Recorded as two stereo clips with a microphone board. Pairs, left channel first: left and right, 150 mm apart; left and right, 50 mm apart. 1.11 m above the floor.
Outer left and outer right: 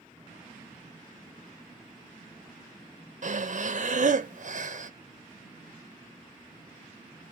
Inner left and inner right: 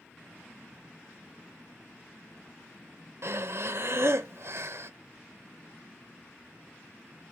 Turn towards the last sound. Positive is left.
turn(degrees=-55)  # may be behind; listen again after turning